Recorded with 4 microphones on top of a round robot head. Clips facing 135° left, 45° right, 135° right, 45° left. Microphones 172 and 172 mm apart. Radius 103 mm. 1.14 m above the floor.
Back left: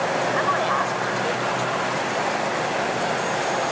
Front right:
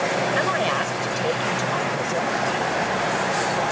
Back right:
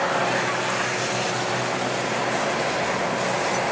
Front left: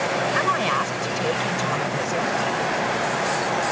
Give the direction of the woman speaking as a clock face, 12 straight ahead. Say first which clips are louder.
Even, front left 2 dB; 11 o'clock.